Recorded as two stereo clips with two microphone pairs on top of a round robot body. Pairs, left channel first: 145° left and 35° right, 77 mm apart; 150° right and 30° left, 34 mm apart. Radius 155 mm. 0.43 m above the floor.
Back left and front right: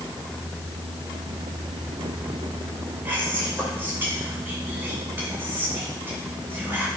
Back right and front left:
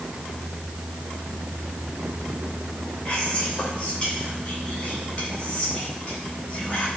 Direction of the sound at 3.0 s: 95° right.